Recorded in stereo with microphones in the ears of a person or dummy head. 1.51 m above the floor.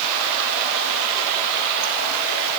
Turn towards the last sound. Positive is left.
No sound to turn to.